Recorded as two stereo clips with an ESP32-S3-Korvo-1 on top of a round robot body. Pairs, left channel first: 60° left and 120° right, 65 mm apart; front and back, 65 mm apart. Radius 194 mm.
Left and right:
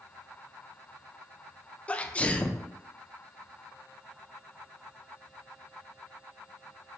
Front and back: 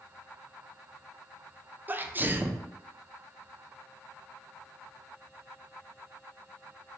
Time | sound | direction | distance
1.9 | a sneeze | 125° left | 0.6 m